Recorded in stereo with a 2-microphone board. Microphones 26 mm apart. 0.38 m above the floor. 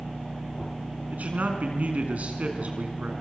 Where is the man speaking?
75° right (ahead or behind), 4.5 m; by 3.1 s 55° right (ahead or behind), 4.5 m.